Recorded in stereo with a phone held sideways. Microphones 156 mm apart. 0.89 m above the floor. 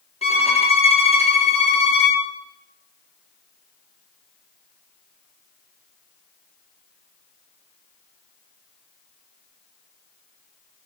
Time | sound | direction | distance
0.2 | a violin | 45° left (ahead or behind) | 0.8 m